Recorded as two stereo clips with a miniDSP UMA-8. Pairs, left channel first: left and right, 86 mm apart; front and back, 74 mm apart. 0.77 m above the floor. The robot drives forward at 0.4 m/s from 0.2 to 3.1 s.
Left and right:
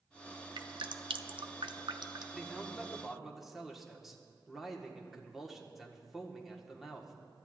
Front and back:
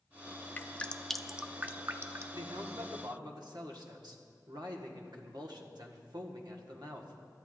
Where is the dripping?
65° right, 0.6 m; by 2.4 s 135° right, 0.7 m.